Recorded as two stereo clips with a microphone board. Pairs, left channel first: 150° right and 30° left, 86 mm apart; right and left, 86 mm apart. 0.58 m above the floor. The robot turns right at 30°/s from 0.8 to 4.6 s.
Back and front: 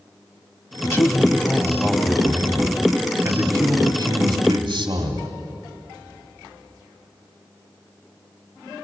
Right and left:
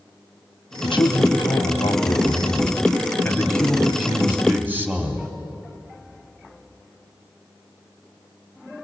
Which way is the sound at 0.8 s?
95° right.